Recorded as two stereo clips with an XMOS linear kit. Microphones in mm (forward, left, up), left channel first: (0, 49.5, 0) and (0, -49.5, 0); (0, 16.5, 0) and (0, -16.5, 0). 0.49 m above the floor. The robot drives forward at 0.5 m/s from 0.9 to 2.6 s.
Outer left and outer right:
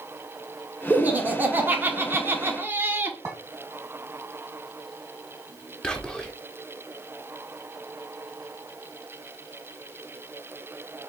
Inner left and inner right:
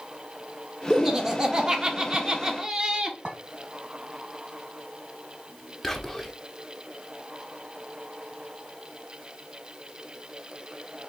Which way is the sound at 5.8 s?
5° left (ahead or behind).